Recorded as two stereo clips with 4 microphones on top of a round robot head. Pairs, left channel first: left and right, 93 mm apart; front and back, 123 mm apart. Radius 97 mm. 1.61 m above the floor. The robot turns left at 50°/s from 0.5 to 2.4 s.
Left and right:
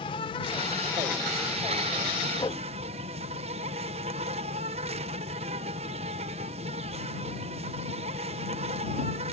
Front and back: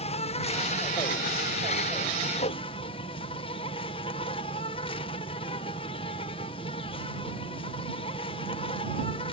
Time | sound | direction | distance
0.0 | an insect | 35° left | ?
2.4 | a whoosh | 30° left | ?